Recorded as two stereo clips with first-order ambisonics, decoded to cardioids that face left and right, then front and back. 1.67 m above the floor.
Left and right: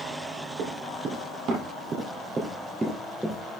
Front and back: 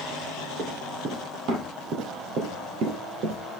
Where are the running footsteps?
130° right, 3.5 m; by 3.6 s 175° left, 2.5 m.